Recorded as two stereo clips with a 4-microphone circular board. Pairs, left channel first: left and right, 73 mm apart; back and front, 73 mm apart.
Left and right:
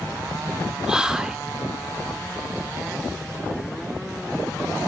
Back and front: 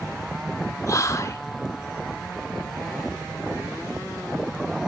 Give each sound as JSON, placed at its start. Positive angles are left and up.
{"t": 0.9, "sound": "whispering", "azimuth_deg": -165, "distance_m": 0.9}